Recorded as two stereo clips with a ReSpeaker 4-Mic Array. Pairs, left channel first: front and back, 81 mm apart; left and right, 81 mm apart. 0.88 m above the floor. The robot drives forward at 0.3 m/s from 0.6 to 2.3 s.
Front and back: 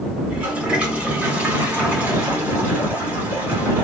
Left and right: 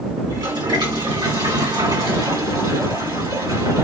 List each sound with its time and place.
0.2 s a toilet flushing: 105° right, 3 m; by 3.8 s 115° right, 3 m